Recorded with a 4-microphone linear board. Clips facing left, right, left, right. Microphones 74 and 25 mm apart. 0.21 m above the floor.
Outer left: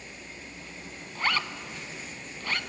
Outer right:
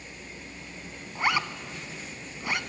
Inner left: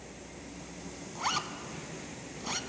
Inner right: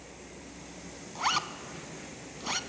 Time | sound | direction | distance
1.1 | a zipper | 15° right (ahead or behind) | 0.6 m